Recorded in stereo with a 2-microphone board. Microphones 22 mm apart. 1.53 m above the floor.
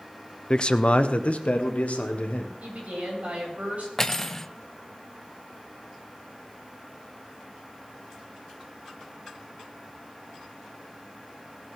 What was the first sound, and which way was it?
A man speaking, 40° left (ahead or behind).